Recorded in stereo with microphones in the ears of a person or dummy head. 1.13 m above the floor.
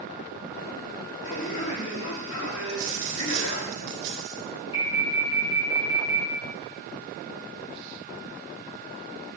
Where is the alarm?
30° left (ahead or behind), 1.9 m.